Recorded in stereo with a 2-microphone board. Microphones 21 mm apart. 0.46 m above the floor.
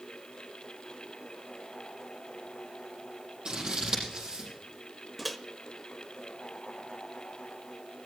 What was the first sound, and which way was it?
Scissors, 45° right (ahead or behind).